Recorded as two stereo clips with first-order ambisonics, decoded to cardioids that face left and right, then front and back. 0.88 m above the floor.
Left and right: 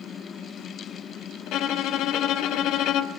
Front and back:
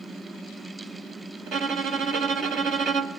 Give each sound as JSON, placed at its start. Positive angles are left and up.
{"t": 1.5, "sound": "a violin", "azimuth_deg": 130, "distance_m": 1.0}